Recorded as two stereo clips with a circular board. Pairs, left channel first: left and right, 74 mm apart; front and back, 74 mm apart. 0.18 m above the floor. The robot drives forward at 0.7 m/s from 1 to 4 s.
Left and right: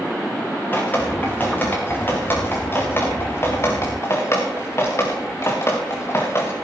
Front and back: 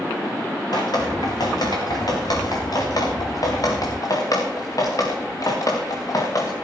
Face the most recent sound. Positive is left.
turn(degrees=35)